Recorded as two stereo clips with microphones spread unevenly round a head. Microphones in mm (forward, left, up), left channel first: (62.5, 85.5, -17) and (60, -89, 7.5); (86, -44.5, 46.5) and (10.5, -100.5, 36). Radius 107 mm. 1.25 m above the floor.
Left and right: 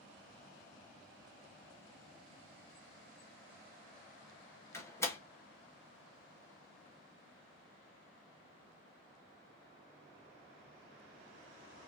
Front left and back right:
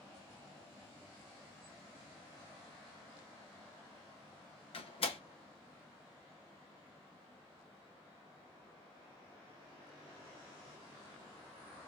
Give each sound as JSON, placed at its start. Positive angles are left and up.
{"t": 4.7, "sound": "a door slam", "azimuth_deg": 15, "distance_m": 1.4}